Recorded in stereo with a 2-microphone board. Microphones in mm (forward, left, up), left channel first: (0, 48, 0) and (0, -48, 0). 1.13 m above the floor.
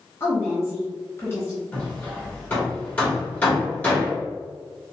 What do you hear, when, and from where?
0.2 s a woman speaking: 30° left (ahead or behind), 0.9 m
1.7 s hammering: 15° left (ahead or behind), 1.4 m